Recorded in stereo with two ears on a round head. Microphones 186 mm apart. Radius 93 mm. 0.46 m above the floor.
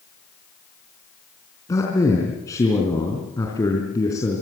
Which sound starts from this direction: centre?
A man speaking, at 1.7 s.